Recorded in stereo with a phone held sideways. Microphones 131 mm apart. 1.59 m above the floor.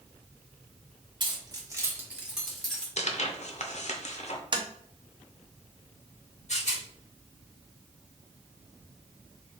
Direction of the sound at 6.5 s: 60° left (ahead or behind).